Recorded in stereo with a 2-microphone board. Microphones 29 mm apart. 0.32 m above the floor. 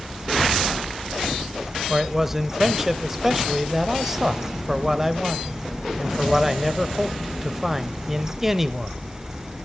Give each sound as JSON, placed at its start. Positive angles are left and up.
{"t": 1.9, "sound": "a man speaking", "side_deg": -10, "distance_m": 1.1}